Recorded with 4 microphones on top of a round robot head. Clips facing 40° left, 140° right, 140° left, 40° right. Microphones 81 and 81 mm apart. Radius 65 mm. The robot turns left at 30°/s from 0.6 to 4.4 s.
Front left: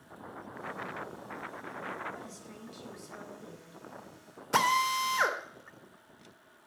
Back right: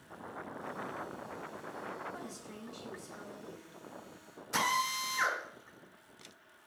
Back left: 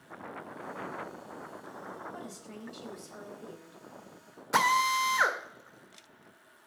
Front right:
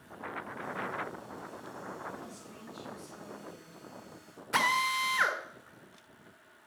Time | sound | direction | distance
2.1 | a woman speaking | 140° left | 5 m
4.5 | a drill | 70° left | 2 m